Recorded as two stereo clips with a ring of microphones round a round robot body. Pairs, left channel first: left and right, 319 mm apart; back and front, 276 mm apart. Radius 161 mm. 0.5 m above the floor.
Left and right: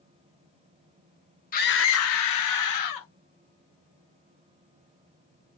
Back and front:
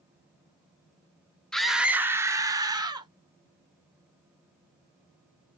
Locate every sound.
1.5 s a scream: 95° left, 0.7 m; by 3.1 s 75° left, 1.4 m